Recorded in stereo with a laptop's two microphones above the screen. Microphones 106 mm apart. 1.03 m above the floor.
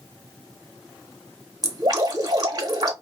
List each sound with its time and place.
1.6 s dripping: 40° right (ahead or behind), 1.2 m